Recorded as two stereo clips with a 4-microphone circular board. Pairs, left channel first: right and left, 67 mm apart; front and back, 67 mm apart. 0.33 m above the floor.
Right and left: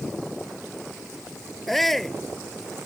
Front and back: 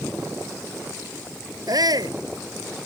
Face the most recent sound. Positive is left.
turn(degrees=-175)